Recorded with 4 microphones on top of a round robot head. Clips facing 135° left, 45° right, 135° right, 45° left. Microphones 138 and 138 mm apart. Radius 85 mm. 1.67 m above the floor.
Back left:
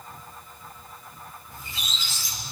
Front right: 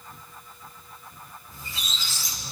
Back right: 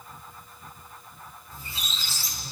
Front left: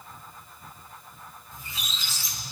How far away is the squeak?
About 1.5 m.